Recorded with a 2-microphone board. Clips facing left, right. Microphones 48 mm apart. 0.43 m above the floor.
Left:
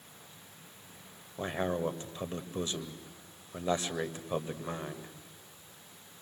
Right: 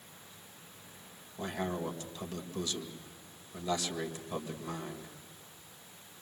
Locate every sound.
1.4 s a man speaking: 30° left (ahead or behind), 1.7 m